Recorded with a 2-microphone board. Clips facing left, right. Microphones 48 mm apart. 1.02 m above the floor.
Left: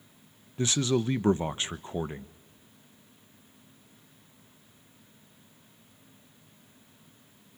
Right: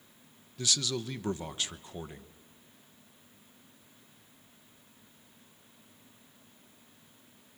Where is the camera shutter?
No camera shutter in this recording.